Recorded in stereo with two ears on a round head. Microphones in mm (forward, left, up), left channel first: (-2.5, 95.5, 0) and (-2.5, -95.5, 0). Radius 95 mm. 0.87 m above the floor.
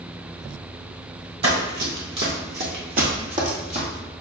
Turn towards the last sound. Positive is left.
turn(degrees=-30)  # may be behind; listen again after turning